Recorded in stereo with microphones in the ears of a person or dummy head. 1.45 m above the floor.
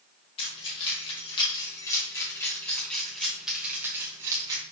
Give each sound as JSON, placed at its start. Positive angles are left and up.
{"t": 0.4, "sound": "keys jangling", "side_deg": 35, "distance_m": 3.0}